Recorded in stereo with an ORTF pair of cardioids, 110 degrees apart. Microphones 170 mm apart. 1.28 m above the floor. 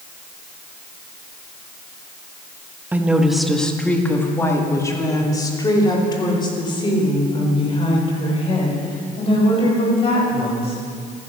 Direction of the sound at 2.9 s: 10° right.